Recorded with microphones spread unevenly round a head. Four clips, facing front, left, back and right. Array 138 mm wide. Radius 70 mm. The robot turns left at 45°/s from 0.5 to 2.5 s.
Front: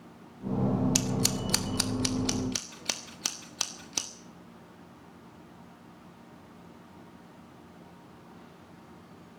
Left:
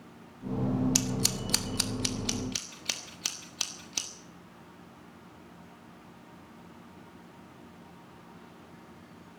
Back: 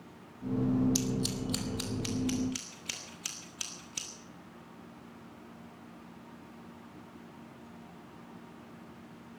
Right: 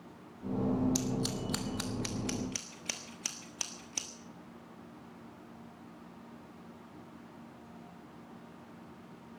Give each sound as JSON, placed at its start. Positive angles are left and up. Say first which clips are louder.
{"t": 0.9, "sound": "scissors", "louder": "left 1 dB, front 2 dB", "azimuth_deg": 75, "distance_m": 1.4}